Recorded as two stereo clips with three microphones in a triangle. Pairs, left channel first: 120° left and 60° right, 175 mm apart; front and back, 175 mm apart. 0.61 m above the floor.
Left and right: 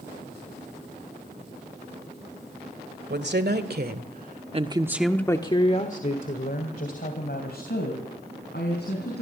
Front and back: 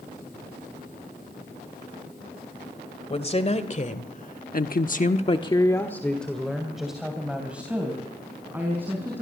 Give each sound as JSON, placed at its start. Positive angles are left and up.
{"t": 3.1, "sound": "a woman speaking", "azimuth_deg": -55, "distance_m": 2.5}